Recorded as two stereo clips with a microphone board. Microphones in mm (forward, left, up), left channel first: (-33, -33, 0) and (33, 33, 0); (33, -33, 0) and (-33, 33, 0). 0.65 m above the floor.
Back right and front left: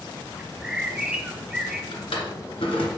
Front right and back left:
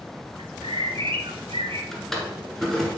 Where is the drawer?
130° right, 1.8 m.